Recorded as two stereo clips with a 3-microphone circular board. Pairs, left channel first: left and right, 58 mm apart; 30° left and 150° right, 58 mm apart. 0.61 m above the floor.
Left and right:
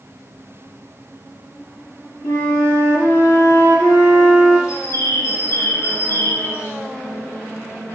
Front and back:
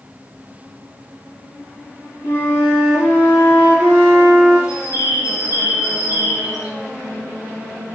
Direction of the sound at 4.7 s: 50° left.